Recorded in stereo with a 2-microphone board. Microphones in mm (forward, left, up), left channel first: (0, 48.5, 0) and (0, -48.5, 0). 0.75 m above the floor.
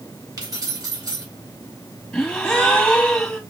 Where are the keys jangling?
45° right (ahead or behind), 2.5 m.